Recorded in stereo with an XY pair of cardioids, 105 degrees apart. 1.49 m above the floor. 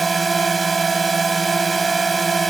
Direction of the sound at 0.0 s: 30° right.